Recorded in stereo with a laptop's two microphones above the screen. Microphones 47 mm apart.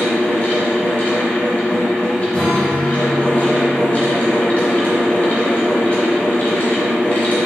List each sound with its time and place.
0.0 s a fan: 35° left (ahead or behind), 2 m
2.3 s a guitar: 20° left (ahead or behind), 2.5 m